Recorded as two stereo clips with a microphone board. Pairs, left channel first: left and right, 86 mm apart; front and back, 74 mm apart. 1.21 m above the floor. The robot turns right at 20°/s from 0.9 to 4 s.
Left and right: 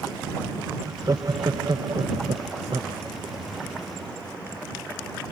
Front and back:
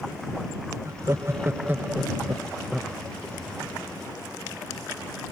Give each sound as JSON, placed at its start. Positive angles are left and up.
{"t": 0.8, "sound": "laughter", "azimuth_deg": -135}